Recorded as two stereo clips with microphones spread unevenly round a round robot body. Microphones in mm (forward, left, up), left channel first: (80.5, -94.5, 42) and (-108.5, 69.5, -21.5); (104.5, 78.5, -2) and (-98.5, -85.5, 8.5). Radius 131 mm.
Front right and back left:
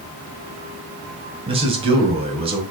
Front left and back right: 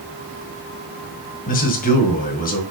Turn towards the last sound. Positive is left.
turn(degrees=90)